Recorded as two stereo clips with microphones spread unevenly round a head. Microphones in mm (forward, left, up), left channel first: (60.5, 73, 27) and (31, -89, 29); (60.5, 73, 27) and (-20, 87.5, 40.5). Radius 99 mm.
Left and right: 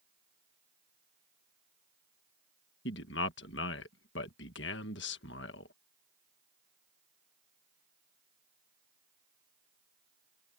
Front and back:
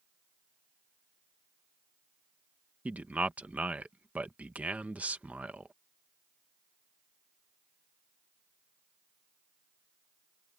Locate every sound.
2.9 s a man speaking: 105° left